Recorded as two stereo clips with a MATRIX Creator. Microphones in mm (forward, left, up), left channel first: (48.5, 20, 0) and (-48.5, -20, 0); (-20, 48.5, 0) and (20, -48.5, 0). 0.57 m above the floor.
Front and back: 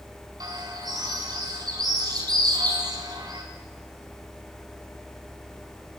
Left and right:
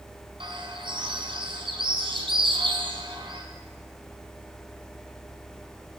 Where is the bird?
105° right, 4 m.